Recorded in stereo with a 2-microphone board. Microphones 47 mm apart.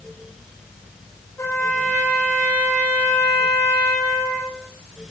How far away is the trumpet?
About 9 m.